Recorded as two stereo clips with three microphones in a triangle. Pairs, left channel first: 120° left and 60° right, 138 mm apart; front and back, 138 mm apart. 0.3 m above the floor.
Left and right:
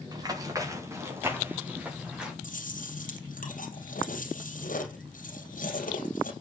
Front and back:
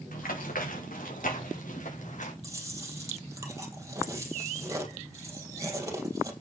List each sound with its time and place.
0.1 s running footsteps: straight ahead, 4.5 m; by 2.3 s 25° left, 4.5 m
2.4 s chewing: 115° left, 3 m